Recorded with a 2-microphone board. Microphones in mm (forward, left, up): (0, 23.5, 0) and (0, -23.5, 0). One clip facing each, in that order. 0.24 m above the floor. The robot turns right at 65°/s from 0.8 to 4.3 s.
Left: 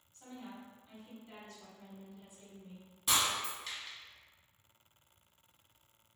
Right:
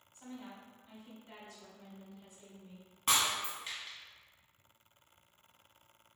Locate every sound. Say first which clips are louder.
0.1 s a woman speaking: even; 20° right (ahead or behind), 1.5 m; by 2.9 s 15° left (ahead or behind), 1.5 m
3.1 s breaking glass: right 1 dB; 50° right (ahead or behind), 1.3 m; by 4.0 s 5° right (ahead or behind), 1.3 m